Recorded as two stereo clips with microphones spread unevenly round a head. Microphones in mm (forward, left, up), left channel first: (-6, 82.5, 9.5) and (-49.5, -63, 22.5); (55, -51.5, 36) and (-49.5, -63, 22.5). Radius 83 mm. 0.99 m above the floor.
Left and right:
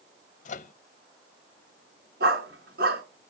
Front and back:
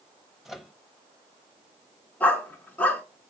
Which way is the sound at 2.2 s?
70° right.